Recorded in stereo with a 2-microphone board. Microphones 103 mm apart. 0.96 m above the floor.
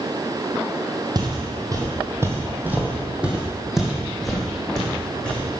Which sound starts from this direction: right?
Footsteps, at 1.1 s.